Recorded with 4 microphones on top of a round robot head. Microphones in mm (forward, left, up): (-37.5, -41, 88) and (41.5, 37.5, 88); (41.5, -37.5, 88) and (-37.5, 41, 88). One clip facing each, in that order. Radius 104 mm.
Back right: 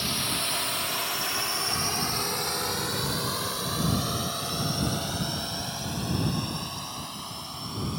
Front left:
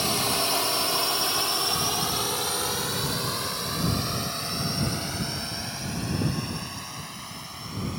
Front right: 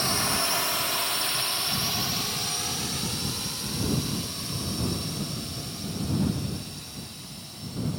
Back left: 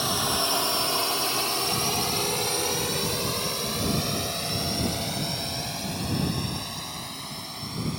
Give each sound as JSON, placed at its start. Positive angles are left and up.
{"t": 0.0, "sound": "a drone", "azimuth_deg": 60}